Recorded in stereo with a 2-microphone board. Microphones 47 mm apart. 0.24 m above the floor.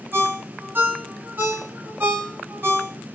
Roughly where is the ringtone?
Right.